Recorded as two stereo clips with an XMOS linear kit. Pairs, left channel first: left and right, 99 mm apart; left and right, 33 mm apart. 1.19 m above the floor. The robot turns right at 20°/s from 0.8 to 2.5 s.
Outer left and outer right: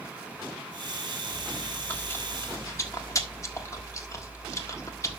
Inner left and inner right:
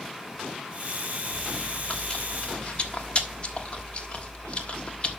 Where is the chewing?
10° left (ahead or behind), 1.4 m; by 5.2 s 30° left (ahead or behind), 1.4 m.